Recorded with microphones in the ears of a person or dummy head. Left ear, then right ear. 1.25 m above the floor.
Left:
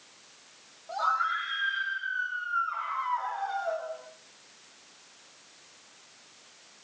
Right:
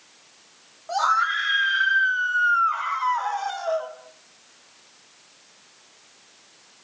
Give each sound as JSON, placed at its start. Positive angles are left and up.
{"t": 0.9, "sound": "a scream", "side_deg": -65, "distance_m": 9.0}